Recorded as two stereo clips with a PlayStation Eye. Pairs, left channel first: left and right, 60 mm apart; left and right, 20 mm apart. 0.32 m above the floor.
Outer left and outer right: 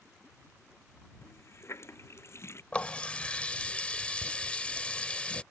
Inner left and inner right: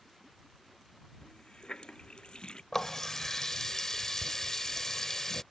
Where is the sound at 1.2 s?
45° left (ahead or behind).